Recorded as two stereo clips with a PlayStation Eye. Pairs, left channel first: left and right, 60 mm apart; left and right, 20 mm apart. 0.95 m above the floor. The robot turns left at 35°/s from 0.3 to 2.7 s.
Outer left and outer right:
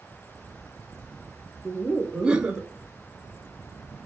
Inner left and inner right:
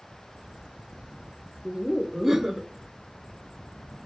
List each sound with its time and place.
1.6 s laughter: 5° right, 0.6 m; by 2.7 s 40° right, 0.6 m